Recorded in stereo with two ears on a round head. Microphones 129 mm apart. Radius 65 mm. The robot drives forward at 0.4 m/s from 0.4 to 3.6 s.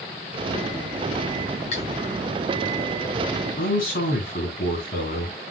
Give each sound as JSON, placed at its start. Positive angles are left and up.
{"t": 1.7, "sound": "cutlery clinking", "side_deg": 50, "distance_m": 3.5}
{"t": 3.6, "sound": "a man speaking", "side_deg": 65, "distance_m": 3.5}